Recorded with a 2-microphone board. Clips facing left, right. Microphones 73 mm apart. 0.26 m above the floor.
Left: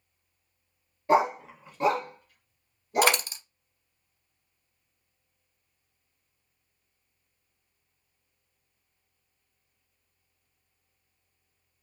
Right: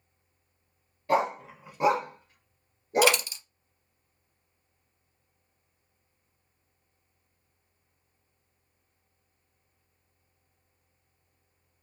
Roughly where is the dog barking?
Left.